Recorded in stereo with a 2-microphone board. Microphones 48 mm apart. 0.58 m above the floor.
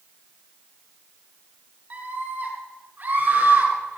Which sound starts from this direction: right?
A scream, at 1.9 s.